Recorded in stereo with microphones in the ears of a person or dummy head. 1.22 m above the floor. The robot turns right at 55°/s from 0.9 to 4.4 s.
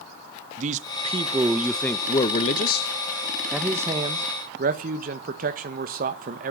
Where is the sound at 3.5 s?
Straight behind, 1.5 m; by 6.5 s 130° right, 1.5 m.